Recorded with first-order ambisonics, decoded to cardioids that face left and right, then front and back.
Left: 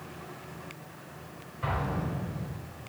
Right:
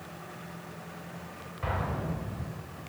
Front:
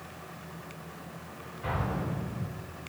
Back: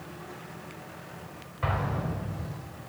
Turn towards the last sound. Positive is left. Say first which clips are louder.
# left 1 dB, back 2 dB
turn(degrees=-175)